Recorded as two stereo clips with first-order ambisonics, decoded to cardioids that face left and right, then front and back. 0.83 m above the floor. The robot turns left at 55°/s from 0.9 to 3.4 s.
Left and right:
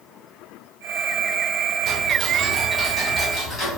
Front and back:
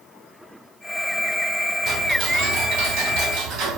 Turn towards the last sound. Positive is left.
turn(degrees=145)